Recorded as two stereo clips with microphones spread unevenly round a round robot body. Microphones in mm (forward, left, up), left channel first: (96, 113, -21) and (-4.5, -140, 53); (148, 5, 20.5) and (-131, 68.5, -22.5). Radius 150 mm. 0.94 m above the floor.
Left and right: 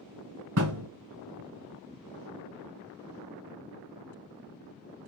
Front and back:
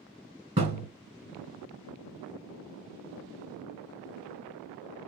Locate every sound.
0.6 s a thud: 115° right, 1.8 m